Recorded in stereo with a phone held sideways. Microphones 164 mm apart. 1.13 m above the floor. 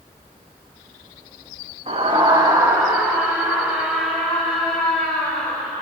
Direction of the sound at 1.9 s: 40° right (ahead or behind).